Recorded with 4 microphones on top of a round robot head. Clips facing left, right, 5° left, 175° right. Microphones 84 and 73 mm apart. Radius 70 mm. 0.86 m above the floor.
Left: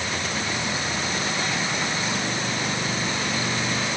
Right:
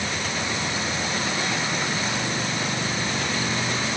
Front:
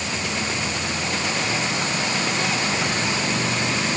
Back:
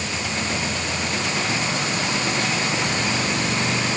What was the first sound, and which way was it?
Only background noise.